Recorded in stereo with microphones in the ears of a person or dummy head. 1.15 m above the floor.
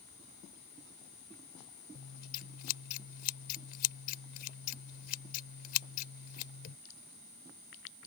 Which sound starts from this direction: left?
Scissors, at 1.9 s.